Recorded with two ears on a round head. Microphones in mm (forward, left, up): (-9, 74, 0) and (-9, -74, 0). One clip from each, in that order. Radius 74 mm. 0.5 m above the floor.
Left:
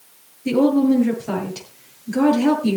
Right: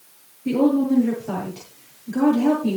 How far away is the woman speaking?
About 7.5 m.